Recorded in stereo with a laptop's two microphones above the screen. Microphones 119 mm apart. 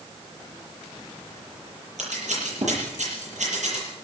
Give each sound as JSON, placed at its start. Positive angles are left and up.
{"t": 2.0, "sound": "scissors", "side_deg": -85, "distance_m": 8.0}